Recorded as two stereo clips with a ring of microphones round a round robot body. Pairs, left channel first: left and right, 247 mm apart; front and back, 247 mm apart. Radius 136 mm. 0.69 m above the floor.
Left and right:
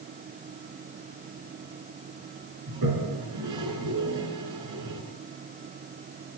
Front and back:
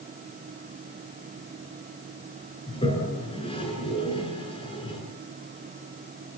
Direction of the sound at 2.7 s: 70° right.